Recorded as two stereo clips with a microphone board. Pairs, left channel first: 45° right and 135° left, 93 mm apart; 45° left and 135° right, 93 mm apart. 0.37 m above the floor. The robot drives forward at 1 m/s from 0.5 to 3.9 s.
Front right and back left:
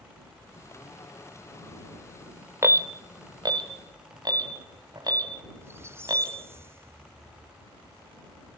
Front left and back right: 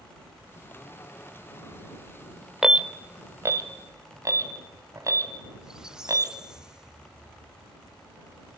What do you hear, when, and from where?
2.6 s an alarm: 145° left, 0.7 m; by 6.3 s 175° left, 1.7 m
5.6 s a squeak: 150° left, 0.5 m